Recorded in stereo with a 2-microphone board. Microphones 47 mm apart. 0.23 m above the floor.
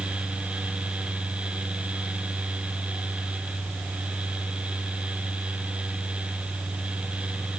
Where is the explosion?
I don't hear an explosion.